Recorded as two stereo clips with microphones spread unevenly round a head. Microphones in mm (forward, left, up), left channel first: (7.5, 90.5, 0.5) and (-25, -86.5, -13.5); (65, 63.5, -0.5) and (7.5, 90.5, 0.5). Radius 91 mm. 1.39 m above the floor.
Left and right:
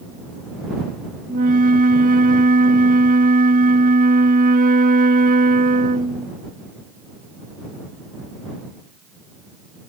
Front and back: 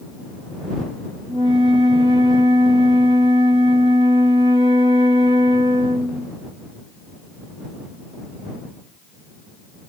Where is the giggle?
No giggle in this recording.